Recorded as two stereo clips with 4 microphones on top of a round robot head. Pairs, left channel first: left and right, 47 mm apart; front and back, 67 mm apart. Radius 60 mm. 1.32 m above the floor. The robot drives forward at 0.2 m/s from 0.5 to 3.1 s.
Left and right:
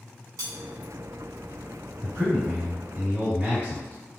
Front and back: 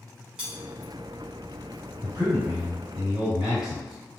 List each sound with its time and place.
0.4 s cutlery clinking: 95° right, 0.8 m
2.0 s a man speaking: 150° right, 1.5 m